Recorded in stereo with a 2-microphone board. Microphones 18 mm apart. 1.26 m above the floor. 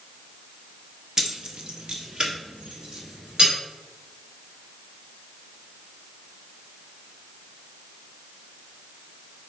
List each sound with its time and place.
1.2 s keys jangling: 25° right (ahead or behind), 0.7 m; by 3.5 s 55° right (ahead or behind), 3.5 m